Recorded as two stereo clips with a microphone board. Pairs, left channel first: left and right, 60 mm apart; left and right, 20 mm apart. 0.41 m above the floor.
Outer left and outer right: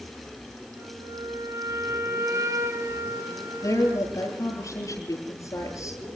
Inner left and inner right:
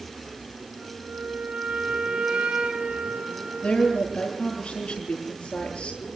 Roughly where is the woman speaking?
Left.